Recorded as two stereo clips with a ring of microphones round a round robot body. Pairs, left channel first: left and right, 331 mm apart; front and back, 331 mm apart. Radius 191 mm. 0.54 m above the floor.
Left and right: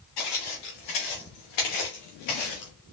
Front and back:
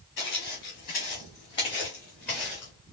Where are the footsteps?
65° left, 3.5 m; by 2.7 s 95° left, 2.5 m.